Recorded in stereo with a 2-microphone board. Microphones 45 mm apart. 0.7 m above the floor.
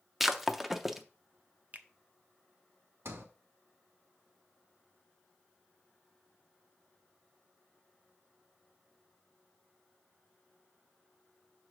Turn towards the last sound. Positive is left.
turn(degrees=-75)  # may be behind; listen again after turning